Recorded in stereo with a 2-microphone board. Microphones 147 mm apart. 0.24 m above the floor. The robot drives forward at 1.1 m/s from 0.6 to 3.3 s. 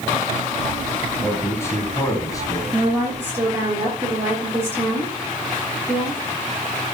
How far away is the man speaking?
About 2.5 m.